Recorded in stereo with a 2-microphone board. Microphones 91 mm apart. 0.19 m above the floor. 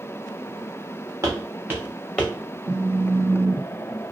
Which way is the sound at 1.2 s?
40° right (ahead or behind).